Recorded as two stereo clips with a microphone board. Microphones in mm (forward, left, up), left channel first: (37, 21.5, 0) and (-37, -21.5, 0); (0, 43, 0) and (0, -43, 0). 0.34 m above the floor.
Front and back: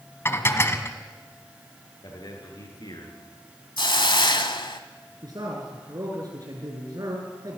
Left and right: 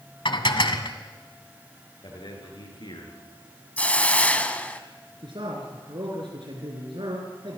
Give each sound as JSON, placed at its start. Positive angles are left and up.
{"t": 0.2, "sound": "dishes clattering", "azimuth_deg": 90, "distance_m": 1.5}
{"t": 2.0, "sound": "a man speaking", "azimuth_deg": 65, "distance_m": 6.5}
{"t": 3.8, "sound": "a hiss", "azimuth_deg": 15, "distance_m": 1.2}
{"t": 5.2, "sound": "a man speaking", "azimuth_deg": -110, "distance_m": 4.5}